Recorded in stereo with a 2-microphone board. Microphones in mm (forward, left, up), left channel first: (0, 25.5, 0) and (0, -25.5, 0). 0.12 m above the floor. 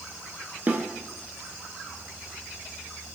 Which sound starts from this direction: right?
A snare drum, at 0.7 s.